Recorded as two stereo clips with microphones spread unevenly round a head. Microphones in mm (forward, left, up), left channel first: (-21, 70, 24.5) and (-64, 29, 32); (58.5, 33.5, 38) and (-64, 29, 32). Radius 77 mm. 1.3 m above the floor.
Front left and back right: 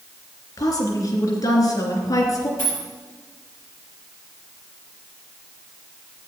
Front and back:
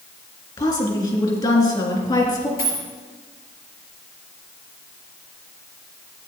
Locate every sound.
0.6 s a woman speaking: 55° left, 3 m
2.6 s a dropped coin: 20° right, 5 m